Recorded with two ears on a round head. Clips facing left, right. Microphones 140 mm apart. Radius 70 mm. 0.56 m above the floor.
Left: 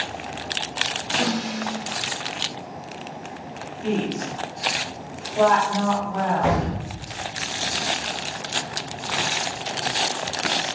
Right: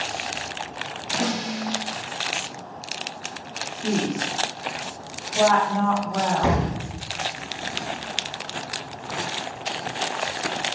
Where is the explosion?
25° right (ahead or behind), 0.6 m.